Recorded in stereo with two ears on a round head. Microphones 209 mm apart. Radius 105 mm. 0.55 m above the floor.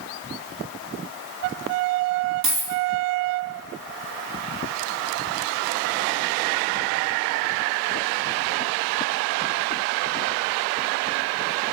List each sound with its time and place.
2.4 s a dropped coin: 75° right (ahead or behind), 1.2 m